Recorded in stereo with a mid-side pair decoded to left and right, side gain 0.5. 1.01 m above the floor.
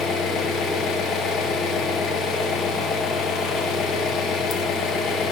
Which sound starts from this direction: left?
An engine running, at 0.0 s.